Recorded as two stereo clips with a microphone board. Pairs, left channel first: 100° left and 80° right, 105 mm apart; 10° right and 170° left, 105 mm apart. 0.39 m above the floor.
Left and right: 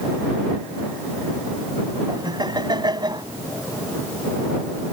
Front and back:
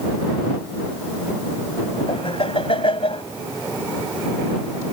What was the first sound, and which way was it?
Laughter, 35° right.